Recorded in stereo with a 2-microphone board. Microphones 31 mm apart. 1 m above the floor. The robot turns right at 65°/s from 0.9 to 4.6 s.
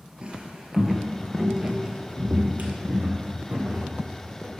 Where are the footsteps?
30° right (ahead or behind), 1.1 m; by 4.5 s 10° left (ahead or behind), 2.5 m.